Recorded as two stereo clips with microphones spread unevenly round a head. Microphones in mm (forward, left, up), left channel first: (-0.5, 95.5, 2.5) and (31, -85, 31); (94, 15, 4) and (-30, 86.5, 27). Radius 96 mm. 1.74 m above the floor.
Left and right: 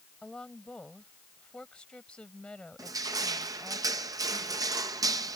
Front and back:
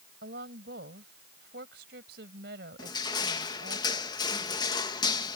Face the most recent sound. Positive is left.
turn(degrees=-80)